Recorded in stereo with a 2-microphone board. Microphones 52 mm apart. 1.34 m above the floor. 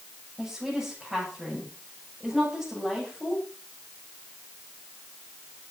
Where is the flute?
No flute in this recording.